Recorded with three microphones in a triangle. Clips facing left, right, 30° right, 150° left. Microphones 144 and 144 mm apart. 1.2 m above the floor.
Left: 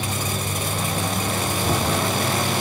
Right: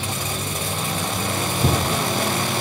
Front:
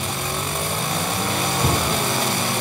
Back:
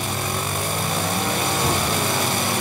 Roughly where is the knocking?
Right.